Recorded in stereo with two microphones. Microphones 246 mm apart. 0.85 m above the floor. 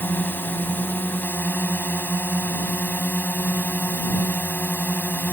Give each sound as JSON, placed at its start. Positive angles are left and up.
{"t": 0.0, "sound": "a drone", "side_deg": 10}